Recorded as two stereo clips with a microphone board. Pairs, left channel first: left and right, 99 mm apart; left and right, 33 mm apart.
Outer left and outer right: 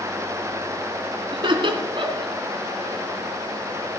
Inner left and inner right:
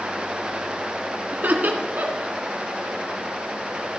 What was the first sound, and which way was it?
Laughter, 55° right (ahead or behind).